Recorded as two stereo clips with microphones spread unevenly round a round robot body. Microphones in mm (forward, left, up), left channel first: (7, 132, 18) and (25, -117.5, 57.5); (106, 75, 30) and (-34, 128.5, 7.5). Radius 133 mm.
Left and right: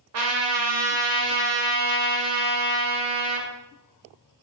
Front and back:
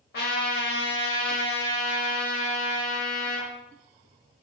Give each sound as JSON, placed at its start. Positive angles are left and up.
{"t": 0.1, "sound": "a trumpet", "azimuth_deg": -55, "distance_m": 0.8}